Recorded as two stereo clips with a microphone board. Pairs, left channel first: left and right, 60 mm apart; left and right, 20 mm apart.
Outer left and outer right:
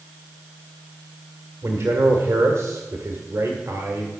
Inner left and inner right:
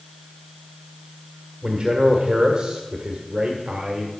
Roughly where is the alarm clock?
I don't hear an alarm clock.